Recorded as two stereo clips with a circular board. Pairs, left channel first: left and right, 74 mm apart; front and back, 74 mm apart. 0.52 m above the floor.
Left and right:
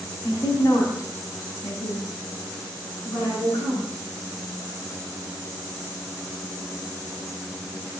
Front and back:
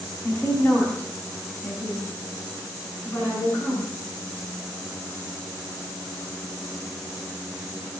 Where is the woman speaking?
55° left, 3.5 m.